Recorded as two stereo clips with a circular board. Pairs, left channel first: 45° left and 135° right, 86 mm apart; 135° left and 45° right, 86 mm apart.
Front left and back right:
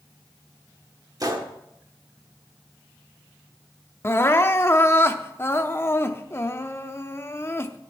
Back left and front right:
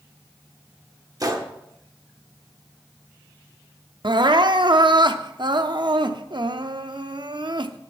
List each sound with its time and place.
1.2 s a gunshot: 90° right, 1.1 m
4.0 s crying: 15° right, 0.6 m